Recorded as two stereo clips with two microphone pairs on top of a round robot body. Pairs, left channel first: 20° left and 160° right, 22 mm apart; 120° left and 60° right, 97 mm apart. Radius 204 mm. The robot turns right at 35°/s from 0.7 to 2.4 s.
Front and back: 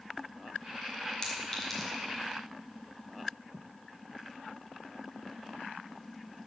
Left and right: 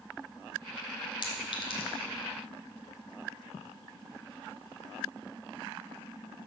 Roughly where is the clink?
Left.